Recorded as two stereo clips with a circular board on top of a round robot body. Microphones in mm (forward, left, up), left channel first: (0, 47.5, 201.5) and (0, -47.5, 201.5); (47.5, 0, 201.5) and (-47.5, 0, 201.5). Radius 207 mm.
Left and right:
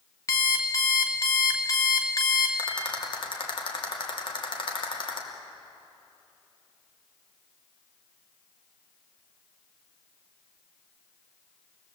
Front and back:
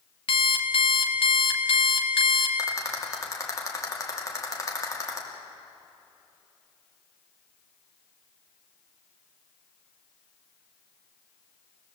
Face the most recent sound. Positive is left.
turn(degrees=60)